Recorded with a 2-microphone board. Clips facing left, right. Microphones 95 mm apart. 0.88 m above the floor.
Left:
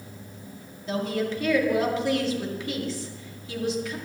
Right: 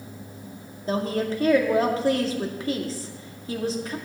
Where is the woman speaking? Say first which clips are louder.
Right 2 dB; 40° right (ahead or behind), 2.0 m.